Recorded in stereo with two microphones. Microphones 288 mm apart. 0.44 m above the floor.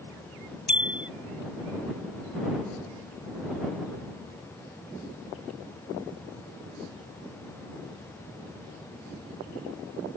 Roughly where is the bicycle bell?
Left.